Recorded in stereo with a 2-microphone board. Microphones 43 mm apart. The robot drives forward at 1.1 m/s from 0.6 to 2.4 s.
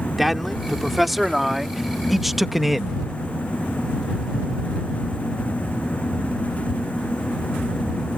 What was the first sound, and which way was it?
A man speaking, centre (ahead or behind).